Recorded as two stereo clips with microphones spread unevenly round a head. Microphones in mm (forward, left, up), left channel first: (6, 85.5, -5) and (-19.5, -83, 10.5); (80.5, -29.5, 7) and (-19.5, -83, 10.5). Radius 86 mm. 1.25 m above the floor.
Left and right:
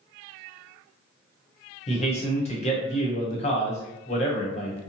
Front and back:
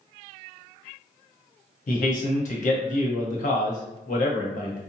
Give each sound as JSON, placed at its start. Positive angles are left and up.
{"t": 1.9, "sound": "a man speaking", "azimuth_deg": 25, "distance_m": 1.0}